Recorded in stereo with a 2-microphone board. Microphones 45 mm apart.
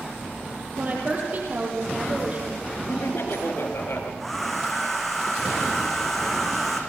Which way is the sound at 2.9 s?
65° left (ahead or behind).